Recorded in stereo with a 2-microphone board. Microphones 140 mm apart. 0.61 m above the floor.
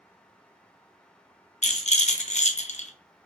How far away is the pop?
I don't hear a pop.